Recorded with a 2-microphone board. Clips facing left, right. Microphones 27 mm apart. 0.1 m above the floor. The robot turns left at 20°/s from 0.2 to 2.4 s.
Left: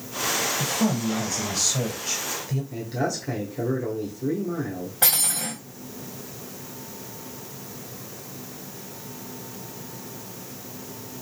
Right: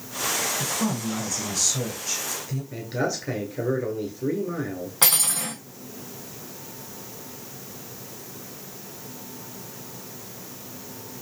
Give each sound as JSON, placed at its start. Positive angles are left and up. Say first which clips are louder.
{"t": 0.6, "sound": "a woman speaking", "louder": "left 2 dB", "azimuth_deg": 55, "distance_m": 1.7}
{"t": 2.7, "sound": "a man speaking", "louder": "right 2 dB", "side_deg": -30, "distance_m": 1.3}
{"t": 5.0, "sound": "cutlery clinking", "louder": "right 1 dB", "side_deg": -75, "distance_m": 2.5}